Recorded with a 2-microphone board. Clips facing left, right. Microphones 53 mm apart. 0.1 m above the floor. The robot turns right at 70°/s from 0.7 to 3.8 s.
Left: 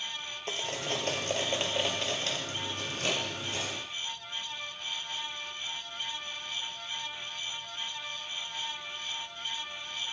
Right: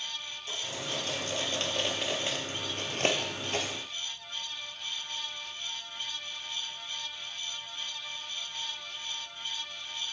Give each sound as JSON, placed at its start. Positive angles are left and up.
{"t": 0.5, "sound": "cutlery clinking", "side_deg": 60, "distance_m": 1.3}